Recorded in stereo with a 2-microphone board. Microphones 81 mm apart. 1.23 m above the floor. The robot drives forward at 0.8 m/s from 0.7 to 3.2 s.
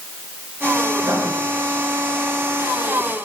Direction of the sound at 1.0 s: 45° right (ahead or behind).